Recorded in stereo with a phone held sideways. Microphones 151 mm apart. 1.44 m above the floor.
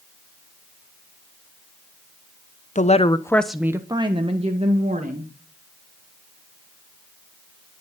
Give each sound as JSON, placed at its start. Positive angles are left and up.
{"t": 2.8, "sound": "a woman speaking", "side_deg": 55, "distance_m": 1.0}